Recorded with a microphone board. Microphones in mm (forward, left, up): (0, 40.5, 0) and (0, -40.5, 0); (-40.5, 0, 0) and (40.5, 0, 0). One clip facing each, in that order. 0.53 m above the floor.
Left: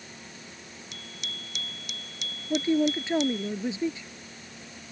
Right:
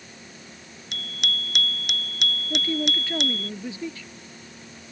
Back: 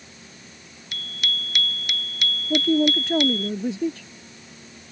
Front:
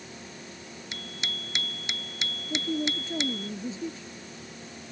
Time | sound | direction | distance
0.9 | a bicycle bell | 65° right | ?
2.5 | a man speaking | 160° left | ?